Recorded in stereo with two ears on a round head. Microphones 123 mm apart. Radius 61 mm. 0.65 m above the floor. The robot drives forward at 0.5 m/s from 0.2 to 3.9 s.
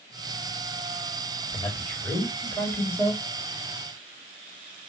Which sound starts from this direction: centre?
A man speaking, at 1.5 s.